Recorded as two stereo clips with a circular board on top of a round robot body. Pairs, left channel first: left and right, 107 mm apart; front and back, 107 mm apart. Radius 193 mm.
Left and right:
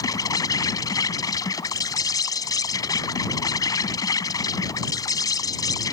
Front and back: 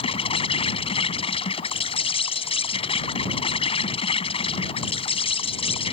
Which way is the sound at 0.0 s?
35° left.